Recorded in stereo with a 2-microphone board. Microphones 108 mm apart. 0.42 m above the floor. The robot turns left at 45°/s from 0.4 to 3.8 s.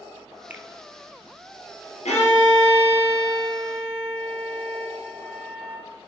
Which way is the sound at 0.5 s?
15° right (ahead or behind).